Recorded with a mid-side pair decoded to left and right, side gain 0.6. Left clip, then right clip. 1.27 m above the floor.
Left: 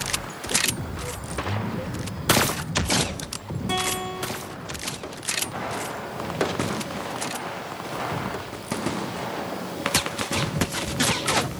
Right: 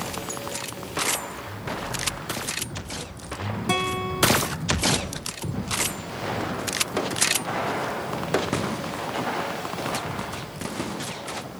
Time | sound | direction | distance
3.7 | a guitar | 30° right | 1.3 m